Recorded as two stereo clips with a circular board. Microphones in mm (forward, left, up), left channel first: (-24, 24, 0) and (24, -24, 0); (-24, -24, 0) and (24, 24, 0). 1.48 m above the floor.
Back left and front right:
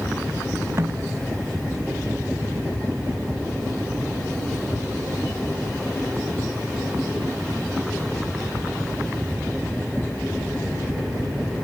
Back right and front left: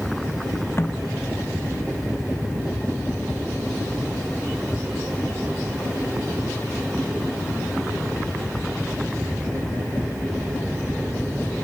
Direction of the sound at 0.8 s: 90° right.